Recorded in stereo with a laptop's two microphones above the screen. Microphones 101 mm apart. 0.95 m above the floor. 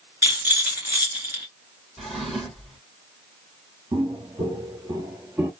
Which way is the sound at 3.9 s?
50° right (ahead or behind).